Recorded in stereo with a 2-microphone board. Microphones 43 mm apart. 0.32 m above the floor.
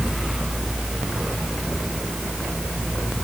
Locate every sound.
Only background noise.